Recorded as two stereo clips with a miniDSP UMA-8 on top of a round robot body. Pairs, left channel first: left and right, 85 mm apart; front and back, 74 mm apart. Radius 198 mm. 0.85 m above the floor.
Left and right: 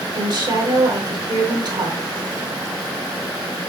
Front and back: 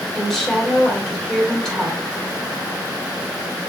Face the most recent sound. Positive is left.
turn(degrees=-80)